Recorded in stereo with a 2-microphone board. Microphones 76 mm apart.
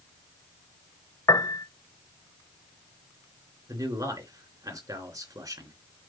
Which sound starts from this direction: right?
A man speaking, at 3.7 s.